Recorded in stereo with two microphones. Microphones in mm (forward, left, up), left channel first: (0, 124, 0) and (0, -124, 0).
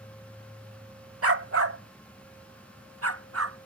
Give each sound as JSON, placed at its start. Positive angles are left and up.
{"t": 1.2, "sound": "a dog barking", "side_deg": -65}